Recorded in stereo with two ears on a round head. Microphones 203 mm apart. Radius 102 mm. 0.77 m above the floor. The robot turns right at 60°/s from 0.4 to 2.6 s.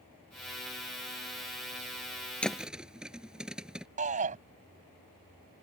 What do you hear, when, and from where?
2.4 s a thud: 5° left (ahead or behind); by 3.9 s 5° right (ahead or behind)
4.0 s a shout: 35° right (ahead or behind)